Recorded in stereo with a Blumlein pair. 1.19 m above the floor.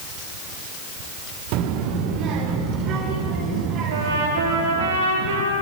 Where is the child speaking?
40° right, 2 m; by 4.9 s 35° right, 6 m.